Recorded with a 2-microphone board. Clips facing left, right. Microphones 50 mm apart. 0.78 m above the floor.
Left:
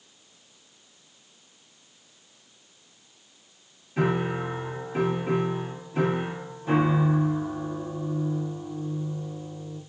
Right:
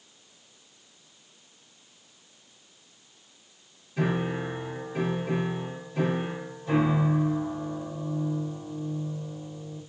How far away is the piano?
About 1.9 m.